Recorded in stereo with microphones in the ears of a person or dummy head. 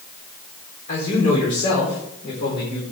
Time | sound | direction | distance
0.9 | a man speaking | 45° left (ahead or behind) | 4 m